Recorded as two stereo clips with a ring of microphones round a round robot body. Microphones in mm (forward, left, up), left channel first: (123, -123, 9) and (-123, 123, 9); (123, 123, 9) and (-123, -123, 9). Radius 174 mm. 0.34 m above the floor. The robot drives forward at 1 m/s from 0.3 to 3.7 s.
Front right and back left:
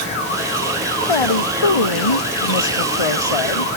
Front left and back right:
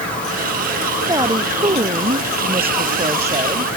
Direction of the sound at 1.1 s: 55° right.